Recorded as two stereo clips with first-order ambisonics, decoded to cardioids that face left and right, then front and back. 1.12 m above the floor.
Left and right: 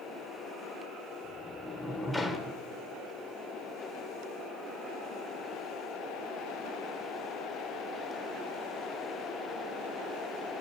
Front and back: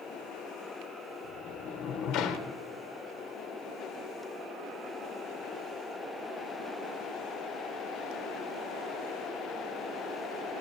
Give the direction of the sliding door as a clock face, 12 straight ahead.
12 o'clock.